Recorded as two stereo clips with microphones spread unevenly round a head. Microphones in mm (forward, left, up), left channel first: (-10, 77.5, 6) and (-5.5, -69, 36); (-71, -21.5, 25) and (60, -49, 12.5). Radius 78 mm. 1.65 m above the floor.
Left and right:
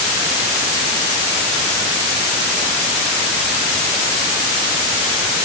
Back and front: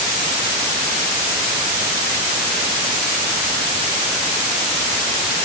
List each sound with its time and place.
Only background noise.